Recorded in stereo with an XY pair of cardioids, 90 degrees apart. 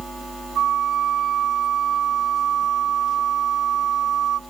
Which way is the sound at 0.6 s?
65° right.